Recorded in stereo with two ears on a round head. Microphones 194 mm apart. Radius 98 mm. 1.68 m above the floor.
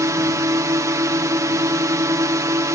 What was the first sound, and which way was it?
A drone, 15° right (ahead or behind).